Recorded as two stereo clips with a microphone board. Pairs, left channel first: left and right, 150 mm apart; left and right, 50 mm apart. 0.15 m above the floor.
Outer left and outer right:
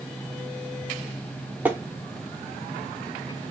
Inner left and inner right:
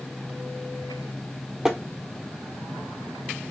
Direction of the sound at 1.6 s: 10° right (ahead or behind).